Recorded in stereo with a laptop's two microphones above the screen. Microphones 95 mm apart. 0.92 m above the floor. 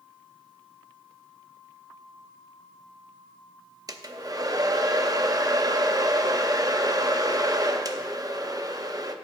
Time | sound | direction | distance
3.9 | a hair dryer | 40° right (ahead or behind) | 0.6 m